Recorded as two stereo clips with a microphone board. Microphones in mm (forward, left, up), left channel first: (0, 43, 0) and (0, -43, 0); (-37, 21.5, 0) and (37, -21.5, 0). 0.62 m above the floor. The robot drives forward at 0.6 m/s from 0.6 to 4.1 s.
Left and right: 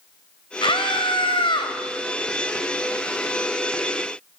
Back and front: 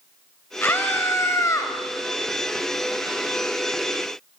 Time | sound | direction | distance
0.6 | a scream | 85° left | 3.5 m